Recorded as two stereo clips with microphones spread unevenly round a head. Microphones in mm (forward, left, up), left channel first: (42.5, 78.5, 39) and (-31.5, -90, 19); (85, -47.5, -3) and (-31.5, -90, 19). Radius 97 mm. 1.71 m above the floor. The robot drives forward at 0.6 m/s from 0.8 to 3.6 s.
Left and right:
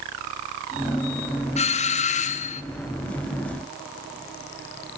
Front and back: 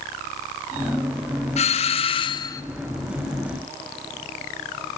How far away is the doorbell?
About 0.9 m.